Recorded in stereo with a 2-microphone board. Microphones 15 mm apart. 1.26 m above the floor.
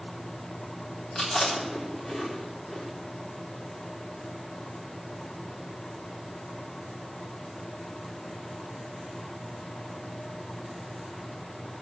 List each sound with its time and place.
1.1 s chewing: 55° left (ahead or behind), 4 m